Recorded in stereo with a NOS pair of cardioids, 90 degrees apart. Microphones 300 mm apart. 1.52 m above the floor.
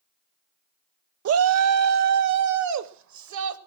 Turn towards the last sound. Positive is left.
turn(degrees=-70)